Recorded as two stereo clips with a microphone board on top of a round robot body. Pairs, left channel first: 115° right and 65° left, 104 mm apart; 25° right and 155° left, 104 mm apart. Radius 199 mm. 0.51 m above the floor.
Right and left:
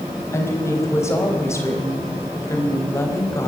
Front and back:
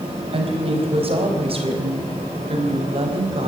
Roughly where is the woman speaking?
Behind.